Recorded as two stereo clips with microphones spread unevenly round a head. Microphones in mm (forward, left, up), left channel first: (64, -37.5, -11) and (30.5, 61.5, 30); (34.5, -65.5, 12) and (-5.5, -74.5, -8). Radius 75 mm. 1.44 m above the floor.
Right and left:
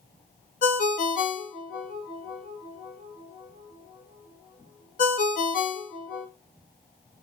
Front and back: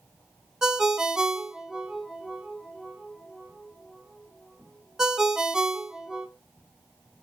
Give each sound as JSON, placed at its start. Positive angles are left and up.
{"t": 0.6, "sound": "a ringtone", "azimuth_deg": -70, "distance_m": 1.0}